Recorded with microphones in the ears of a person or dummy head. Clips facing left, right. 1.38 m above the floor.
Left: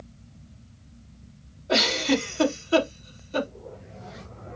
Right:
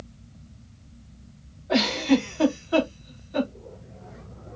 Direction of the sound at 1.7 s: 40° left (ahead or behind).